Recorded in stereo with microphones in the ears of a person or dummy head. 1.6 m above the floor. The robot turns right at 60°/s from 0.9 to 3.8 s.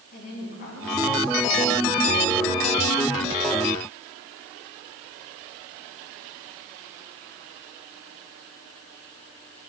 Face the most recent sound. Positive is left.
turn(degrees=-50)